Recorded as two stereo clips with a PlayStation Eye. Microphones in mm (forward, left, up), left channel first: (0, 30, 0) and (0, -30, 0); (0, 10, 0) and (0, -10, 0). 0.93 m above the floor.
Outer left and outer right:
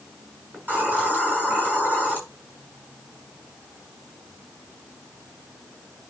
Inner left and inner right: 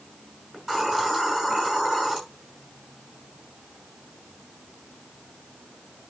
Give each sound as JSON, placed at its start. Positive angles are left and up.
{"t": 0.5, "sound": "a hiss", "side_deg": -25, "distance_m": 6.0}